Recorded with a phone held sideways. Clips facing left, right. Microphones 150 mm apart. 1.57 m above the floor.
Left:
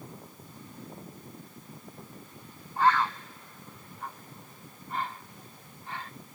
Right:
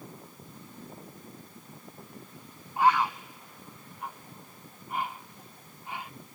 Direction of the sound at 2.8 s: 15° right (ahead or behind).